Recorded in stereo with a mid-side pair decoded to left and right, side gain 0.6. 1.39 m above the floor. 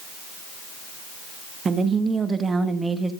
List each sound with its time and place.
1.6 s a woman speaking: 35° right, 2.5 m; by 3.1 s 10° right, 2 m